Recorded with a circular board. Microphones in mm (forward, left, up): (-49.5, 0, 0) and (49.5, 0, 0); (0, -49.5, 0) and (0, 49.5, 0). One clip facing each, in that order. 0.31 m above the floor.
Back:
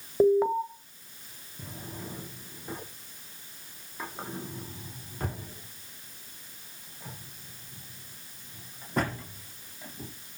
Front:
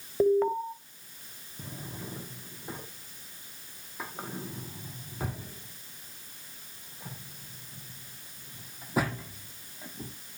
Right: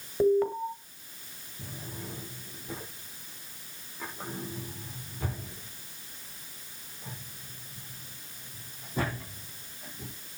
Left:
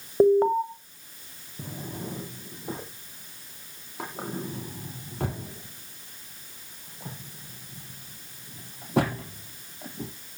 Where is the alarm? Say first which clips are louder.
Back 2 dB, left 5 dB; 110° left, 2 m.